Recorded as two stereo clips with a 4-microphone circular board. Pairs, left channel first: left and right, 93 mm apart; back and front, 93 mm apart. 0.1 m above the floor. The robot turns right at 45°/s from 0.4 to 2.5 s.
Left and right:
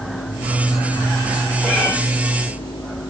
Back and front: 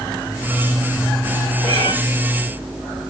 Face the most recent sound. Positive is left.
turn(degrees=40)